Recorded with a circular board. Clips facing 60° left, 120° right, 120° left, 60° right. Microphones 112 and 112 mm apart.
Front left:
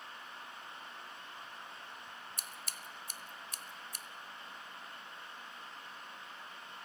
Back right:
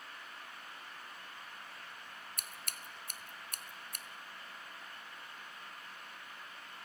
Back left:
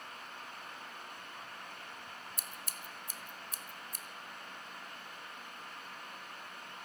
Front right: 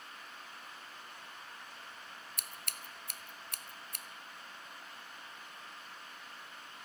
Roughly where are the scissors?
Right.